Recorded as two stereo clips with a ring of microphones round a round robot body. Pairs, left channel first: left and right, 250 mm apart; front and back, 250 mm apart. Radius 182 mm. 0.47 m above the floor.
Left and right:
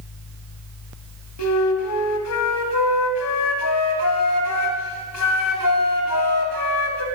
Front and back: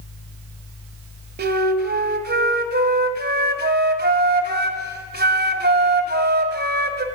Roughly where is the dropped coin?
I don't hear a dropped coin.